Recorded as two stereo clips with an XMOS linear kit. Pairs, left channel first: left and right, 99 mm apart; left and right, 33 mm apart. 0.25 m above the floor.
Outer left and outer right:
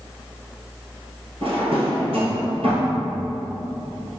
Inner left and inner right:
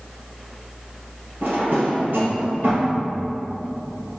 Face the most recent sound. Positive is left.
turn(degrees=-80)